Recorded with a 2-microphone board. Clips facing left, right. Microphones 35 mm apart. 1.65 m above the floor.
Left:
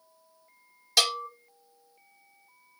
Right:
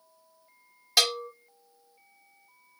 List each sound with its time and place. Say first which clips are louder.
1.0 s a bell: even; 15° right (ahead or behind), 1.7 m